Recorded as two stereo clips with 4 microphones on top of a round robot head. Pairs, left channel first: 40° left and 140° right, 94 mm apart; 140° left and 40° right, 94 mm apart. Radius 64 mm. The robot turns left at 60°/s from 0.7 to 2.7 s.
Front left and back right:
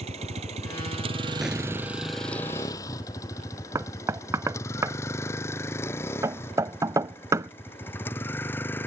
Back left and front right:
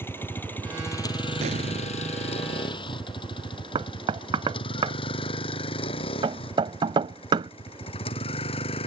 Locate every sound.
0.0 s a vehicle: 155° right; by 8.9 s 110° left
1.4 s an explosion: 55° right; by 2.1 s 95° right
3.8 s knocking: 80° right